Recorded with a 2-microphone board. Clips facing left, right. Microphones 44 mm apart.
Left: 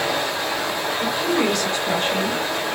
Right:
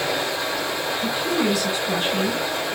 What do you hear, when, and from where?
0.0 s running water: 60° left (ahead or behind), 7 m
1.0 s a woman speaking: 65° left (ahead or behind), 5.5 m